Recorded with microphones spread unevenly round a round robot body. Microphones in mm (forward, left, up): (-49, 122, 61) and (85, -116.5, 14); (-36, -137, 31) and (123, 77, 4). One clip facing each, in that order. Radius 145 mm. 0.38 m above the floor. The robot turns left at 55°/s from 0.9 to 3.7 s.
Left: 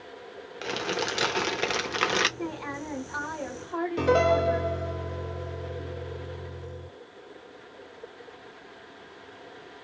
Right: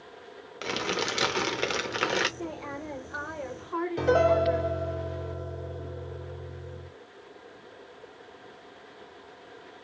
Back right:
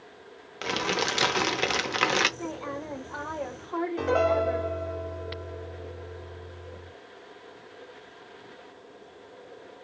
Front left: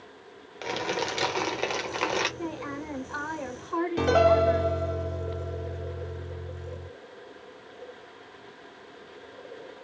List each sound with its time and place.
0.6 s crumpling: 80° right, 0.7 m; by 2.3 s 155° right, 0.7 m
2.4 s a woman speaking: 65° left, 1.3 m; by 4.7 s 5° right, 1.3 m
4.0 s a piano: 40° left, 1.0 m